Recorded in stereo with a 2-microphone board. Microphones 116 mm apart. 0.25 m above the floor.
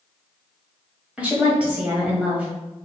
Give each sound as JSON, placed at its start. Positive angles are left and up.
{"t": 1.2, "sound": "a woman speaking", "side_deg": -10, "distance_m": 1.1}